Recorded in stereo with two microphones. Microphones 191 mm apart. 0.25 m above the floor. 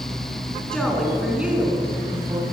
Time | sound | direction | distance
0.7 | a woman speaking | 5° left (ahead or behind) | 3 m